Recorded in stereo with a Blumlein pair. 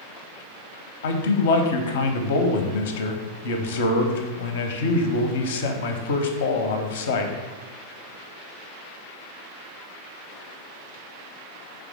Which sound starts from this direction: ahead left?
A man speaking, at 1.0 s.